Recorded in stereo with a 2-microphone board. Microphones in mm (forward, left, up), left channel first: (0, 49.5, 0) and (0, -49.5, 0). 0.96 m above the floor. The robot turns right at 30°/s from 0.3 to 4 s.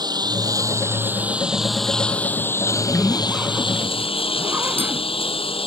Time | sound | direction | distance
0.0 | a lawn mower | 45° right | ?
2.7 | a zipper | 160° left | ?